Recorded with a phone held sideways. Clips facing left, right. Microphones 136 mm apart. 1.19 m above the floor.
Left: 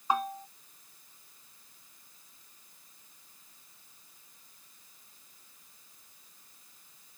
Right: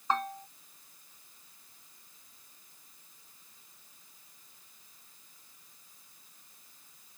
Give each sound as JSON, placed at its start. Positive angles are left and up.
{"t": 0.1, "sound": "a bell", "side_deg": 10}